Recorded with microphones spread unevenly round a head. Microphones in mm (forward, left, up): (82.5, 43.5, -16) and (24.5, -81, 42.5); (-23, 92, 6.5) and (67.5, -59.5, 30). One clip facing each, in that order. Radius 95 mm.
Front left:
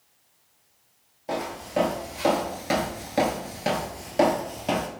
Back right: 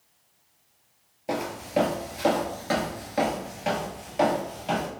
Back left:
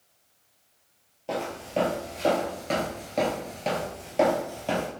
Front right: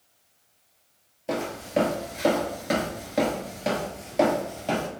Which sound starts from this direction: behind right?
Footsteps, at 1.3 s.